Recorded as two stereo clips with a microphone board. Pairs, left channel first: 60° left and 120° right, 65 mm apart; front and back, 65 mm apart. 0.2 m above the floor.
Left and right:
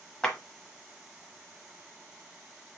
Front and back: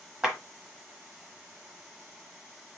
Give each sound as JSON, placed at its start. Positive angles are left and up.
{"t": 0.2, "sound": "a clap", "azimuth_deg": 120, "distance_m": 1.2}